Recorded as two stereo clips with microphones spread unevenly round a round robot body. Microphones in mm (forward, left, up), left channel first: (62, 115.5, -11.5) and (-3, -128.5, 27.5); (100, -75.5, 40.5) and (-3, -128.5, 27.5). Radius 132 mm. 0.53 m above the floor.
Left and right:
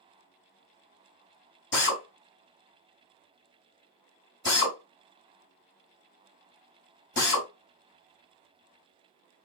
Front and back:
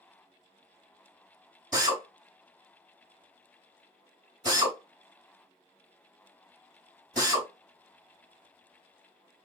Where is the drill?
120° left, 2.5 m.